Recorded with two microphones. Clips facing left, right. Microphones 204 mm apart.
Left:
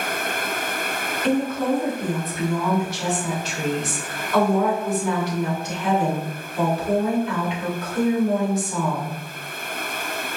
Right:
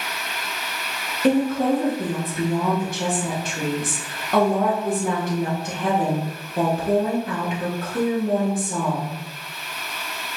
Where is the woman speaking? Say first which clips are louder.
Right 3 dB; 55° right (ahead or behind), 1.7 m.